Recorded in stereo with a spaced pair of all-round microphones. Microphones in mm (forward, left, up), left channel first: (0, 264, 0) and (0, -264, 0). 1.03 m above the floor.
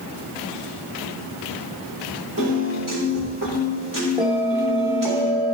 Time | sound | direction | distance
2.4 | a piano | 35° right (ahead or behind) | 3.5 m
4.2 | a bell | 5° right (ahead or behind) | 1.8 m